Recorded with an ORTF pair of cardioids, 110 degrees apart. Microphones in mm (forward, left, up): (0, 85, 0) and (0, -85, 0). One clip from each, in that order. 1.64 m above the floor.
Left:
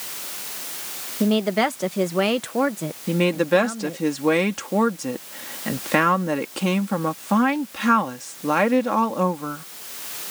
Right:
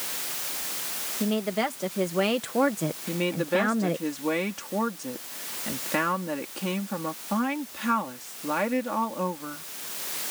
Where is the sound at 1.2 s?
45° left; by 4.1 s 55° right.